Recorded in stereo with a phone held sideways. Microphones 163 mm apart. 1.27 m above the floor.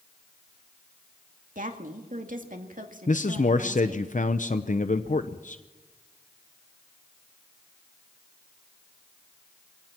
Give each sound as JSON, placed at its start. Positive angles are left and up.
{"t": 1.6, "sound": "a woman speaking", "side_deg": -55, "distance_m": 2.0}
{"t": 3.1, "sound": "a man speaking", "side_deg": 50, "distance_m": 0.7}